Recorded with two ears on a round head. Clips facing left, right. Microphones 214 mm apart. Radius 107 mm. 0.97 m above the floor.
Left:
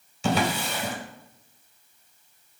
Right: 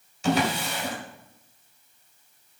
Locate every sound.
0.2 s a drawer: 75° left (ahead or behind), 1.7 m